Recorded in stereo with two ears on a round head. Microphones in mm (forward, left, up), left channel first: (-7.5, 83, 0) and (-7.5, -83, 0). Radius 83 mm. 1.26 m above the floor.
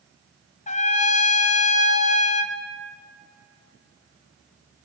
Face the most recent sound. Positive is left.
turn(degrees=35)  # may be behind; listen again after turning